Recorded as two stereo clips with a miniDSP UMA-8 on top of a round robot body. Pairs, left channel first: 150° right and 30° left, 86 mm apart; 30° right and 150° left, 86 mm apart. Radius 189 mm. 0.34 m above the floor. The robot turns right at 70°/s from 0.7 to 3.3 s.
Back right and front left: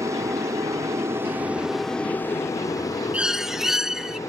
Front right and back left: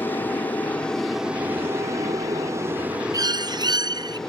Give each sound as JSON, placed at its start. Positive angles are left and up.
{"t": 0.0, "sound": "an aircraft", "azimuth_deg": 20}
{"t": 3.1, "sound": "a bird", "azimuth_deg": 105}